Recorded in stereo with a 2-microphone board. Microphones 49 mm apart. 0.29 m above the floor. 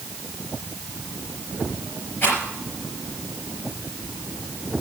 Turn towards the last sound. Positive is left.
turn(degrees=45)  # may be behind; listen again after turning